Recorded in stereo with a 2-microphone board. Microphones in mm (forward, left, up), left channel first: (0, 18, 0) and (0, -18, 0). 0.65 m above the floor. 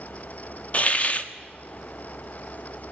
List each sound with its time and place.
0.7 s a hiss: 40° left (ahead or behind), 1.3 m